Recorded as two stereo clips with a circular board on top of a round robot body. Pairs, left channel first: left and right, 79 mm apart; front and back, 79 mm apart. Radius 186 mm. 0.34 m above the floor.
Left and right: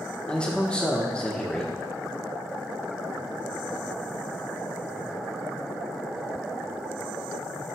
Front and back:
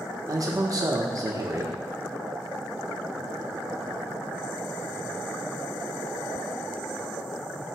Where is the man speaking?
165° left, 1.3 m.